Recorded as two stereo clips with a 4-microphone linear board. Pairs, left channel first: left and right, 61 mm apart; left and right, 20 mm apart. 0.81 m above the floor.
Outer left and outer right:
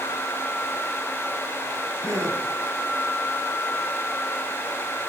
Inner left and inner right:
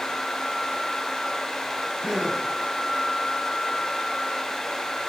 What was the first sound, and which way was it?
A gasp, 60° right (ahead or behind).